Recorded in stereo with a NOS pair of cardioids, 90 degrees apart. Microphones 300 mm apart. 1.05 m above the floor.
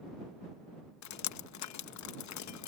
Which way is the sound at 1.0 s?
65° left.